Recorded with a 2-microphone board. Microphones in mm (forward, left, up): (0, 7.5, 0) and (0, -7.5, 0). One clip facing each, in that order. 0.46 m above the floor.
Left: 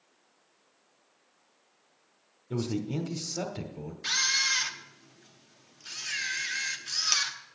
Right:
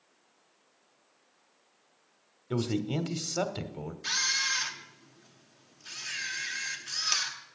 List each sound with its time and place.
2.5 s a man speaking: 40° right (ahead or behind), 1.1 m
4.0 s a camera shutter: 15° left (ahead or behind), 0.9 m